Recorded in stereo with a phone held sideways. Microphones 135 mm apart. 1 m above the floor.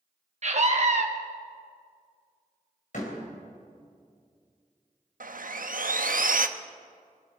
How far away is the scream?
About 0.9 m.